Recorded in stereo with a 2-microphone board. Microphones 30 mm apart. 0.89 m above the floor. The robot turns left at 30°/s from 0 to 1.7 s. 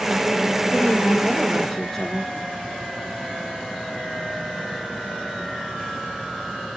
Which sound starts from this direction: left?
A woman speaking, at 0.7 s.